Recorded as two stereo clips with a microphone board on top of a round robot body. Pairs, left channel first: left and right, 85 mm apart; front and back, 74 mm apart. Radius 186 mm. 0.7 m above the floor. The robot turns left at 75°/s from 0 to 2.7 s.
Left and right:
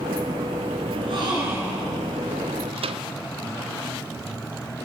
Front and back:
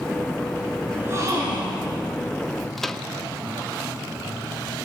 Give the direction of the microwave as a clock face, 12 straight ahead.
3 o'clock.